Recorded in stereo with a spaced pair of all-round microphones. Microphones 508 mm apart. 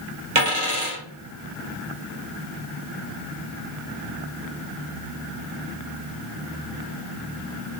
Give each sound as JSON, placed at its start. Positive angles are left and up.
{"t": 0.3, "sound": "a dropped coin", "side_deg": -70, "distance_m": 3.0}